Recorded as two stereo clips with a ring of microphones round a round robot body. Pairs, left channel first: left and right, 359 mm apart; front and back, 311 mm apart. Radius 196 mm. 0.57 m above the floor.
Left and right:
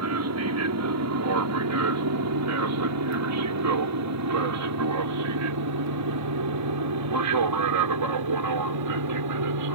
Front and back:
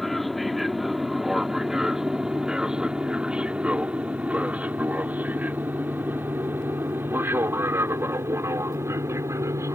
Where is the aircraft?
90° right; by 9.7 s 100° right.